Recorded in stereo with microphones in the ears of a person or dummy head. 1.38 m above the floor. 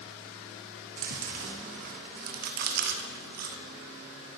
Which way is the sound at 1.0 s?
50° right (ahead or behind).